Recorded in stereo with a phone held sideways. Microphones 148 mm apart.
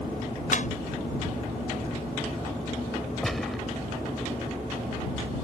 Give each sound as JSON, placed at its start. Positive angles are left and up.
{"t": 0.5, "sound": "a clap", "side_deg": 60}
{"t": 3.2, "sound": "a gunshot", "side_deg": 0}